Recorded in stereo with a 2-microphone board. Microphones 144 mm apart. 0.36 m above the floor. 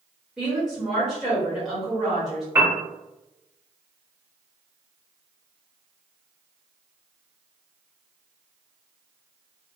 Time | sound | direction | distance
0.4 | a woman speaking | 5° right (ahead or behind) | 1.5 m
2.5 | a piano | 15° right (ahead or behind) | 0.7 m